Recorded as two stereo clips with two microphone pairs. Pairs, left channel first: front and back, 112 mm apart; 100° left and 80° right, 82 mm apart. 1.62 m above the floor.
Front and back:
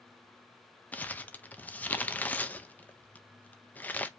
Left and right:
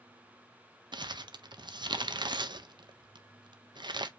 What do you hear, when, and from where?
0.9 s crumpling: 70° right, 0.6 m